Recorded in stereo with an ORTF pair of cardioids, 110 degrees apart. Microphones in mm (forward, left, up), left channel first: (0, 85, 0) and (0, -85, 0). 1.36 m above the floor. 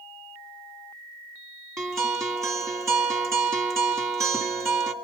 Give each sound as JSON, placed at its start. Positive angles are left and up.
{"t": 1.8, "sound": "a guitar", "azimuth_deg": -20, "distance_m": 2.5}